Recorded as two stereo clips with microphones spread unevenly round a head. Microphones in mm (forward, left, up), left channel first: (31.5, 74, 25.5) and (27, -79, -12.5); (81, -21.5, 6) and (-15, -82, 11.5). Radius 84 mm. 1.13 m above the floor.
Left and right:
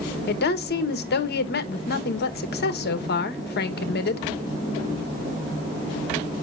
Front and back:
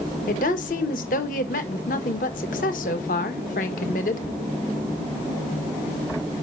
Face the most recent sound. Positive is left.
turn(degrees=60)